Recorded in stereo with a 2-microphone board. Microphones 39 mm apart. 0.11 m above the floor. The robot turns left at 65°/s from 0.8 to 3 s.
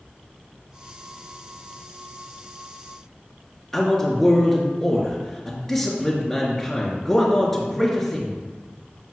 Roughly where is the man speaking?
Centre.